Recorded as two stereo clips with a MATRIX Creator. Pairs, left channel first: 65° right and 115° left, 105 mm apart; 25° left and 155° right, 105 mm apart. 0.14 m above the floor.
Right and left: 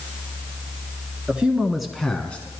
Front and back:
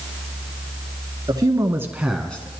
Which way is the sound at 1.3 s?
175° right.